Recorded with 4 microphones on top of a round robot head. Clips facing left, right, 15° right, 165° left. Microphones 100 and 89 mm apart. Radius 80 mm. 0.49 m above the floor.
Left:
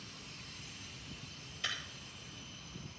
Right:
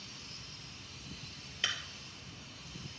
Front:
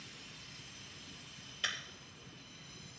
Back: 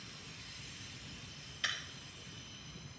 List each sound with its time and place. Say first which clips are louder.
1.6 s breaking glass: right 2 dB, even; 75° right, 2.5 m